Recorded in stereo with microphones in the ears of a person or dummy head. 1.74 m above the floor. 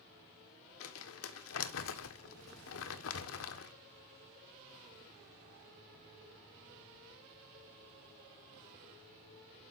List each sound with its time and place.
0.8 s crumpling: 75° left (ahead or behind), 1.3 m